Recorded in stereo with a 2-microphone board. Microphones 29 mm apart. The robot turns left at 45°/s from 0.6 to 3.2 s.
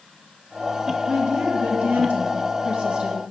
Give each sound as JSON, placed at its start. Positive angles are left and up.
{"t": 1.1, "sound": "a woman speaking", "azimuth_deg": -50, "distance_m": 1.7}